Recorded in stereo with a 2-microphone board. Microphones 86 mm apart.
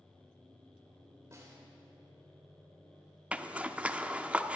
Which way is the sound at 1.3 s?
35° right (ahead or behind).